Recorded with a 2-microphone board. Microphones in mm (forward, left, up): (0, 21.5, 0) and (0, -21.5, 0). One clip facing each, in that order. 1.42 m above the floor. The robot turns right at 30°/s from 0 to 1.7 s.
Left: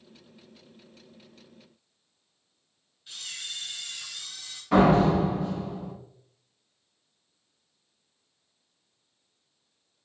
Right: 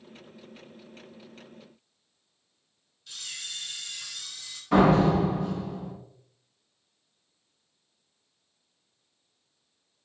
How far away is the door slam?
About 1.3 m.